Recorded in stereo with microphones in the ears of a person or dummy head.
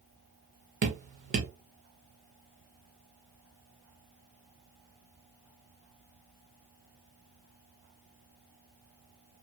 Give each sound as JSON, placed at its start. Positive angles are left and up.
{"t": 0.8, "sound": "dripping", "side_deg": -40, "distance_m": 1.0}